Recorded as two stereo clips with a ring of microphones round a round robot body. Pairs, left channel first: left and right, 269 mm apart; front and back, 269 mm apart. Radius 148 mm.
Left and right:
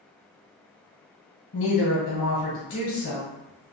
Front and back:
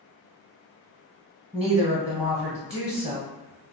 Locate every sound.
1.5 s a woman speaking: 95° left, 1.3 m